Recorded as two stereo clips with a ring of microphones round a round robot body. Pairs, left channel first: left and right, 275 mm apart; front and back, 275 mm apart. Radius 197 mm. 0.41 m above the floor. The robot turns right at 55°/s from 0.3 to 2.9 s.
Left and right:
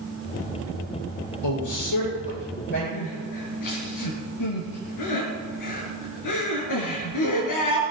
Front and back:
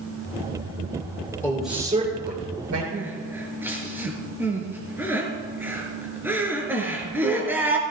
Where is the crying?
95° left, 4 m.